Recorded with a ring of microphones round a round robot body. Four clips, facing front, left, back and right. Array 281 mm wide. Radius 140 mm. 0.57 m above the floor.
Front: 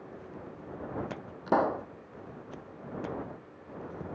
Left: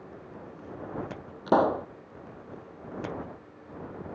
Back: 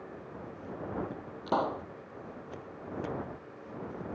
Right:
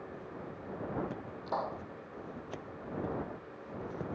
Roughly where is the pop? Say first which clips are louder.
Left 14 dB, front 4 dB; left.